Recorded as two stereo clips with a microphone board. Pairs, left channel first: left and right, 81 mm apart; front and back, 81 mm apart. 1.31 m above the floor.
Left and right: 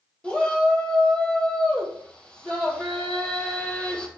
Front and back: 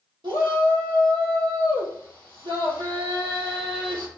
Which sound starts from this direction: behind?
A shout, at 0.2 s.